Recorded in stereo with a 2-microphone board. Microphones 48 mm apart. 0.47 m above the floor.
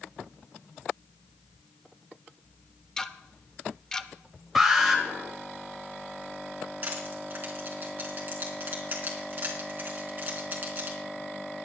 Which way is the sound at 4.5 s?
5° right (ahead or behind).